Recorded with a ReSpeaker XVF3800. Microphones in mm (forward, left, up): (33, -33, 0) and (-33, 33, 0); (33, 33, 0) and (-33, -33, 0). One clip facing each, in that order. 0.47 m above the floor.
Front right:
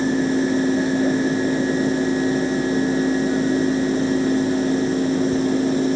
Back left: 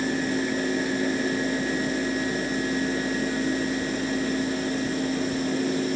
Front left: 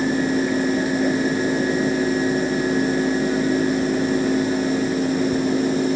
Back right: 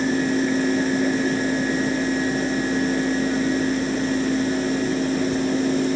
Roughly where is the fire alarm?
I don't hear a fire alarm.